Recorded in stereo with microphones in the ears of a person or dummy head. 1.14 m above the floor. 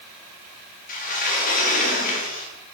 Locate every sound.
0.9 s a sliding door: 45° left (ahead or behind), 1.8 m